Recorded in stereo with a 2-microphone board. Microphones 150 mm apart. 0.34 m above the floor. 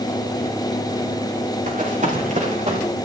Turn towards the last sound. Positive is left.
turn(degrees=-50)  # may be behind; listen again after turning